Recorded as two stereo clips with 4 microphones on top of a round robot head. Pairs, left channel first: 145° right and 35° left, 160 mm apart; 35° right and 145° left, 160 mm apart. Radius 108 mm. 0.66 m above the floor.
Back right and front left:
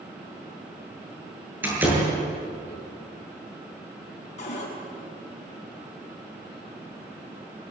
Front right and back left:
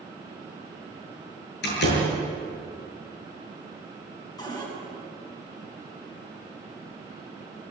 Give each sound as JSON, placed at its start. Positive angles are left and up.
{"t": 1.6, "sound": "a door slam", "azimuth_deg": -45, "distance_m": 9.0}
{"t": 4.4, "sound": "a cupboard door", "azimuth_deg": -100, "distance_m": 7.0}